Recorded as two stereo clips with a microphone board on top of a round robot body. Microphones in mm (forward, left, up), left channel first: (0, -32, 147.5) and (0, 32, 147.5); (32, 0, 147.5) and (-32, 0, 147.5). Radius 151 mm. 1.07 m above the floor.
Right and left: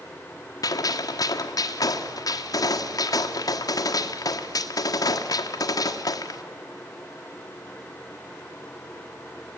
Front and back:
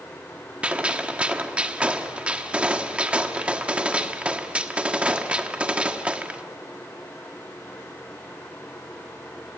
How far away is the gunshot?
About 1.4 m.